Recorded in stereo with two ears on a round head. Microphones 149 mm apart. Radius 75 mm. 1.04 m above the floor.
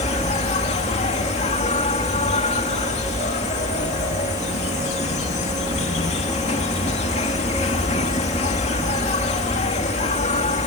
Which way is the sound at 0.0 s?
40° left (ahead or behind).